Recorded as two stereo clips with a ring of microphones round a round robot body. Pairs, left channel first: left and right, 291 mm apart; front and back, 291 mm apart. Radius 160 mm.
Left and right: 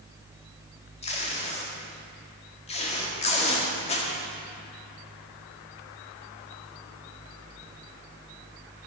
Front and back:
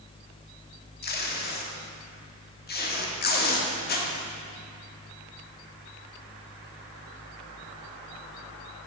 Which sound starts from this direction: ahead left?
Tape being pulled, at 1.0 s.